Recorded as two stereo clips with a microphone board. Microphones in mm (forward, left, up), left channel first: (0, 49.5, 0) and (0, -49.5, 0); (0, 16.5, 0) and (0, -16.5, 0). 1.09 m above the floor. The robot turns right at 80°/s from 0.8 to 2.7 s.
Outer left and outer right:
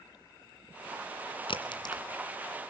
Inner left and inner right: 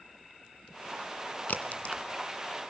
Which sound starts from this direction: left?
A crack, at 1.5 s.